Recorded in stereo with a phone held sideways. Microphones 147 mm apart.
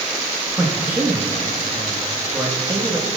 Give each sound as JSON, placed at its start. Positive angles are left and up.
{"t": 0.6, "sound": "a man speaking", "side_deg": -15, "distance_m": 2.0}